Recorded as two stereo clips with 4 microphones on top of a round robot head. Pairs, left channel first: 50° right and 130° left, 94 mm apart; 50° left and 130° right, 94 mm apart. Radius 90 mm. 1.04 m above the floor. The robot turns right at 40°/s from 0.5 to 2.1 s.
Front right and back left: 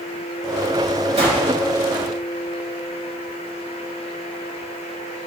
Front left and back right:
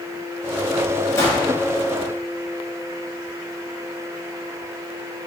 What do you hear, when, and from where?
1.2 s a gunshot: 110° left, 5 m; by 1.5 s 125° left, 5 m